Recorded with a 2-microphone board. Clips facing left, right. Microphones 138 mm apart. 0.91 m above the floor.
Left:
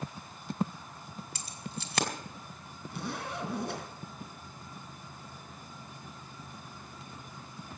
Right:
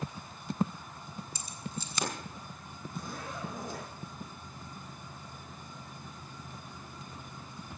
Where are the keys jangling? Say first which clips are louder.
Right 1 dB; 90° left, 2.5 m.